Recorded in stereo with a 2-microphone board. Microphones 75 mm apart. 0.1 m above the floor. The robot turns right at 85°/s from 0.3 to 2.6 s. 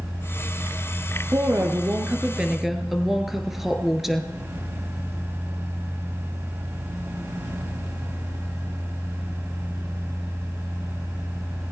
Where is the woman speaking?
115° right, 1.6 m; by 4.3 s 5° right, 1.6 m.